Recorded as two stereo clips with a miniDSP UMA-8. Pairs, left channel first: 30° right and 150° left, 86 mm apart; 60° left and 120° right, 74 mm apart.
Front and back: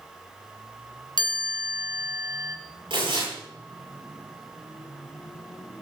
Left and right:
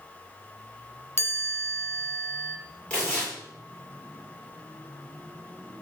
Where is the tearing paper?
140° left, 8 m.